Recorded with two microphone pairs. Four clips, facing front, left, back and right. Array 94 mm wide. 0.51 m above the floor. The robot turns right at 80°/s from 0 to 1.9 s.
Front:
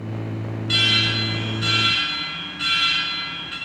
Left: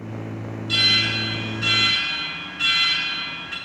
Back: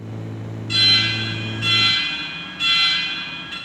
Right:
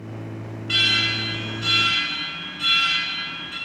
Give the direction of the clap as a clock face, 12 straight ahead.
No clap in this recording.